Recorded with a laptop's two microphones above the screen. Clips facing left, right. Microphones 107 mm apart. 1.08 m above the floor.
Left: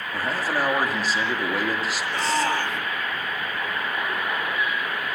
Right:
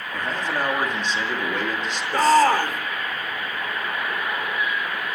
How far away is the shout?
About 4.5 m.